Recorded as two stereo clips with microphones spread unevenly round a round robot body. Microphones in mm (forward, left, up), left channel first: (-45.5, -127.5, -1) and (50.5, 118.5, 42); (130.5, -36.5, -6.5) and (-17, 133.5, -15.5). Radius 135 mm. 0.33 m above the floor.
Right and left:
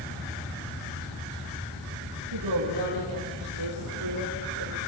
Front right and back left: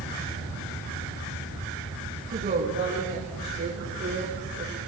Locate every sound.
2.3 s a woman speaking: 85° left, 10 m; by 4.8 s 90° left, 10.5 m